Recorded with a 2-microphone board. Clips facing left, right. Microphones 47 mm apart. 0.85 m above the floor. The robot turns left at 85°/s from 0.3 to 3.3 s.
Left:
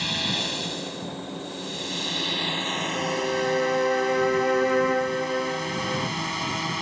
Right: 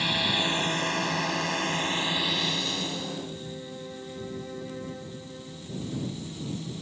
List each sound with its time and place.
0.0 s a drone: 10° right (ahead or behind); by 6.8 s 75° left (ahead or behind)
3.0 s a violin: 40° left (ahead or behind); by 6.1 s 70° left (ahead or behind)